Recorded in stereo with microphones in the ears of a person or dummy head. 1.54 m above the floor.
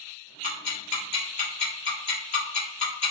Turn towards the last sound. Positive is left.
turn(degrees=40)  # may be behind; listen again after turning